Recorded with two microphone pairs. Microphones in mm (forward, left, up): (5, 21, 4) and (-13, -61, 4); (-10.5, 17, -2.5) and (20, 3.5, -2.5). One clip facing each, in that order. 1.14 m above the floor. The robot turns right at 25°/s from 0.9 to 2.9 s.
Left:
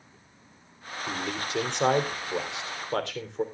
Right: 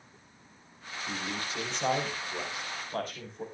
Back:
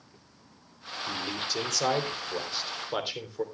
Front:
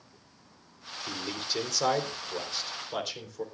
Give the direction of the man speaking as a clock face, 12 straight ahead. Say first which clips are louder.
Left 4 dB, back 2 dB; 11 o'clock.